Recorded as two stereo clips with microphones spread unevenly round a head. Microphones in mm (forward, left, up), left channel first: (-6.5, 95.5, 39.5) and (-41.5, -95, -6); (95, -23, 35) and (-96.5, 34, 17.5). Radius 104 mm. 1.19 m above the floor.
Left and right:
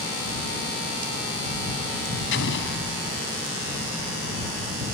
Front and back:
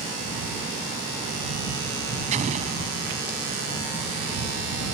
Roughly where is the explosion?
Left.